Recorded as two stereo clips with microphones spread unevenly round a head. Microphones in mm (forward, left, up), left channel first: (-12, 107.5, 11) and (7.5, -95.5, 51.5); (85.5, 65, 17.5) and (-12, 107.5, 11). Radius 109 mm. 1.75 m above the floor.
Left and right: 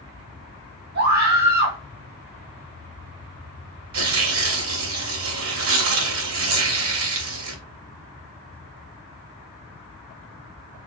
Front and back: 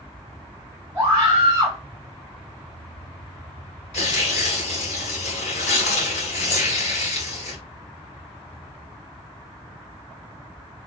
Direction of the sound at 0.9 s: 125° right.